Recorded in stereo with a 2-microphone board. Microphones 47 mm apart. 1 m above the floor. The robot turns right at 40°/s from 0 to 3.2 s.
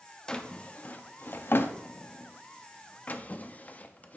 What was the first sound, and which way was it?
A drawer, 20° left (ahead or behind).